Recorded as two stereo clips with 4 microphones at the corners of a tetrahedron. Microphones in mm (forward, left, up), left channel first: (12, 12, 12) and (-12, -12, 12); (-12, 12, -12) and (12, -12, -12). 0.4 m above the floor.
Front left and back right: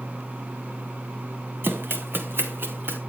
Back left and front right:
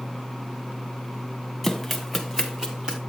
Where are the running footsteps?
140° right, 1.8 m; by 3.0 s 115° right, 2.5 m.